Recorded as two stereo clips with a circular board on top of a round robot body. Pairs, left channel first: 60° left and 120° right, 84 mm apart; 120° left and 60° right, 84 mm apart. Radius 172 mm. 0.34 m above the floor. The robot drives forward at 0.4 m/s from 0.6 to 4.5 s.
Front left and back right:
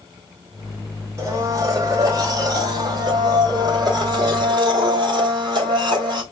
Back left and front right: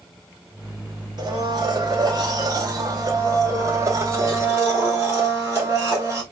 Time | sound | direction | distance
1.2 | a blender | 75° right | 2.5 m